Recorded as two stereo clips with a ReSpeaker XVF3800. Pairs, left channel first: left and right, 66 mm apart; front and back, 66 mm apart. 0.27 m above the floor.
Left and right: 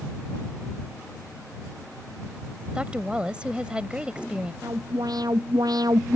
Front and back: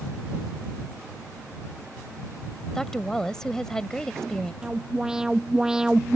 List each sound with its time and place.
2.8 s a woman speaking: 60° right
4.6 s an alarm: 100° right